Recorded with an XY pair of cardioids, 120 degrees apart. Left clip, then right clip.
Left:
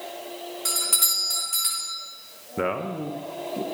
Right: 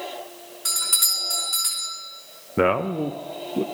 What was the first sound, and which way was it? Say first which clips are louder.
A doorbell: right 2 dB; 5° left.